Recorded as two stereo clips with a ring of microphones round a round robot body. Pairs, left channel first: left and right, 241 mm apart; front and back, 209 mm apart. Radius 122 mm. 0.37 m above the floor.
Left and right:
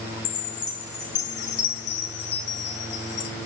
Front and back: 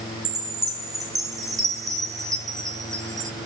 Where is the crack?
No crack in this recording.